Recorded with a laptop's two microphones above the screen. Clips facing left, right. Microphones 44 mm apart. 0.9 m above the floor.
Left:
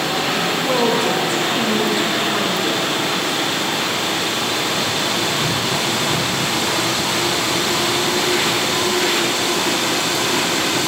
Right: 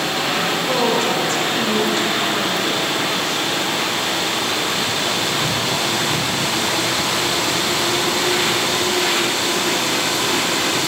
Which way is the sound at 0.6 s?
10° left (ahead or behind).